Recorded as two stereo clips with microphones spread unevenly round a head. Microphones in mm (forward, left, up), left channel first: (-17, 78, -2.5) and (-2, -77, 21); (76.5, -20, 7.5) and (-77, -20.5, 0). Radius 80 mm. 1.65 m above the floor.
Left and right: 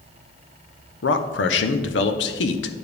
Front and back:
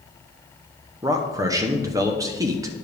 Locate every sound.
1.0 s a man speaking: 110° left, 0.9 m